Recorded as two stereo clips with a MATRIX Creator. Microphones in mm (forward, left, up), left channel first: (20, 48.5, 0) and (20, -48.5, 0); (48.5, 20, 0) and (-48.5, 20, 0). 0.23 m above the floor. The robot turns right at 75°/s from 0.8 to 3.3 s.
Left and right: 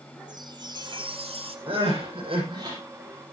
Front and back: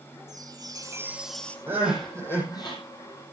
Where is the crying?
115° right, 10 m; by 2.8 s 35° right, 10 m.